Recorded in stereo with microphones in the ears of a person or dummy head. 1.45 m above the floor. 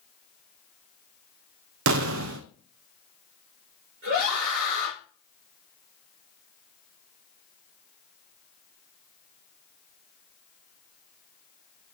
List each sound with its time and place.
1.9 s an explosion: 65° right (ahead or behind), 0.6 m
4.0 s a scream: 65° right (ahead or behind), 6 m